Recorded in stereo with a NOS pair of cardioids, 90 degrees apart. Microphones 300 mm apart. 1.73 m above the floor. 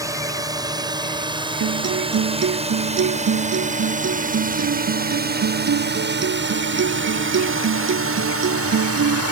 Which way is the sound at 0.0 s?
10° right.